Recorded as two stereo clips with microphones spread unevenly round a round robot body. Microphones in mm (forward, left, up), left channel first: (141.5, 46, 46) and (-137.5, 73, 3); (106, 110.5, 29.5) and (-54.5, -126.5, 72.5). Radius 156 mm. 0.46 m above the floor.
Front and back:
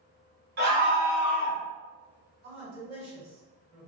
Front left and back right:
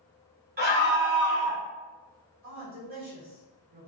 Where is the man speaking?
85° right, 1.6 m.